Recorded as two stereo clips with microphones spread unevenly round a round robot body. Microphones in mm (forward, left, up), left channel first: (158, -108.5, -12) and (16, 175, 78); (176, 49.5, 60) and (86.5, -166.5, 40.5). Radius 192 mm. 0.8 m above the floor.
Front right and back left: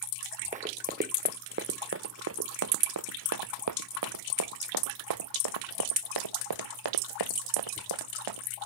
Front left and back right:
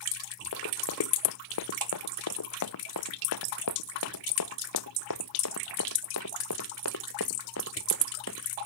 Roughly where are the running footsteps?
Ahead left.